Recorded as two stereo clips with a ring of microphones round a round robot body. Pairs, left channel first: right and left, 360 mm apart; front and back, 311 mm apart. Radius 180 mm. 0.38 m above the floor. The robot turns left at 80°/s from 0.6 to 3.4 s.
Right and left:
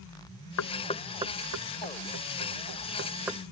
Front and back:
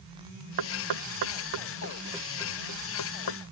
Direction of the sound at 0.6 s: 140° right.